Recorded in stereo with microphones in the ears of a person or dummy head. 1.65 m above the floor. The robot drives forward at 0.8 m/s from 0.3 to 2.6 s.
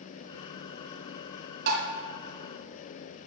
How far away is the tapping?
About 2.5 m.